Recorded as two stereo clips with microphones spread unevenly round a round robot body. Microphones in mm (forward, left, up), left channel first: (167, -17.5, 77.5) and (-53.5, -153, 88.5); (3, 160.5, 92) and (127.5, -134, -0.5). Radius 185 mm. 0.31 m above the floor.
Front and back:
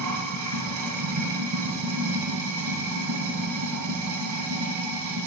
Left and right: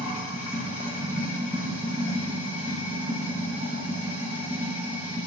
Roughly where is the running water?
Behind right.